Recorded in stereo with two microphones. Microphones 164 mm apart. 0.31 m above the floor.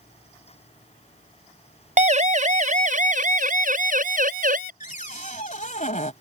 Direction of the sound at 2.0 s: 45° right (ahead or behind).